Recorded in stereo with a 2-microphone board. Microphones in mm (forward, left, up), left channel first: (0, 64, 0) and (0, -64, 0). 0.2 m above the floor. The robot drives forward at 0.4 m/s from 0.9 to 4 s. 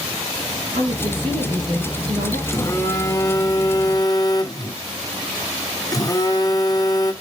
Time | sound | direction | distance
0.7 | a woman speaking | 70° right (ahead or behind) | 4.5 m
2.5 | a phone buzzing | 25° left (ahead or behind) | 1.0 m